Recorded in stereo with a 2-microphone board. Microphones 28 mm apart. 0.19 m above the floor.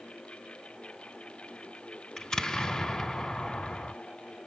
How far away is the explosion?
About 0.6 m.